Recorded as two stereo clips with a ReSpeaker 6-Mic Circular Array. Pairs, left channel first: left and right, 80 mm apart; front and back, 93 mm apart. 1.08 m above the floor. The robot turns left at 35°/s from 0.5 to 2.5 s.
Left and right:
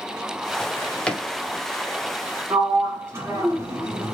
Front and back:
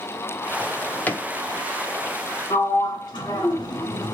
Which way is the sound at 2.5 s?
40° right.